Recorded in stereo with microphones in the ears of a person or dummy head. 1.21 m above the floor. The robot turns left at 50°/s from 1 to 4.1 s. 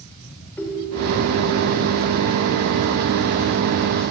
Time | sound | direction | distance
0.6 | a ringtone | 15° left (ahead or behind) | 1.8 m